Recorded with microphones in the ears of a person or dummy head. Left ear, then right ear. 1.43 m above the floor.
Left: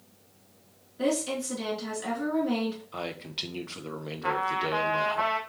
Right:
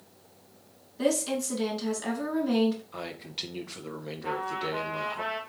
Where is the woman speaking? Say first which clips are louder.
Right 1 dB; 10° right (ahead or behind), 2 m.